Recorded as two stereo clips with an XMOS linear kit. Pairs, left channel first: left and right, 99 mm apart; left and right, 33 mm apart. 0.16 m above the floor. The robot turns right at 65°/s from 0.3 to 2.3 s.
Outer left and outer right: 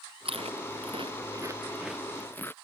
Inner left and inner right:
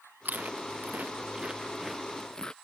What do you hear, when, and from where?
0.2 s chewing: 70° right (ahead or behind); by 2.5 s 20° left (ahead or behind)